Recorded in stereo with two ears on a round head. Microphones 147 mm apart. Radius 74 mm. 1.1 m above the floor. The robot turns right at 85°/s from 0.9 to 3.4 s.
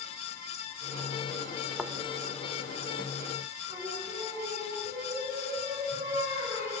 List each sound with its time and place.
1.8 s a thud: 5° right (ahead or behind), 0.8 m; by 1.9 s 10° right (ahead or behind), 0.8 m
3.7 s singing: 25° right (ahead or behind), 8 m